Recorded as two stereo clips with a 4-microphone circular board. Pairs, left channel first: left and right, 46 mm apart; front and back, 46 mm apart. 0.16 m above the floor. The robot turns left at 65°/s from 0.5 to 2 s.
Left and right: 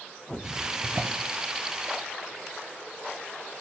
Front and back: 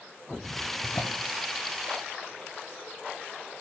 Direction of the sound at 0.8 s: 25° right.